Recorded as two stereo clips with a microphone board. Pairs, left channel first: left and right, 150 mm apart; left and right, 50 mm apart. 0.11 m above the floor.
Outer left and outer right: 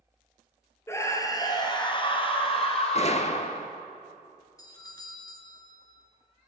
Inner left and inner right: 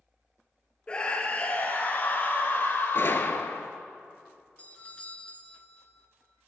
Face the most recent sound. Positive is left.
turn(degrees=25)  # may be behind; listen again after turning